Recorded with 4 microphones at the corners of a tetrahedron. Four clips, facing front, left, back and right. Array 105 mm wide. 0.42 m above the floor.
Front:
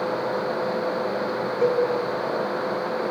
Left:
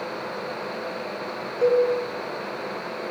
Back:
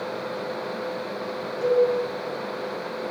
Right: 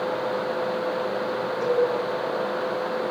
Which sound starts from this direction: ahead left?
A cowbell, at 1.6 s.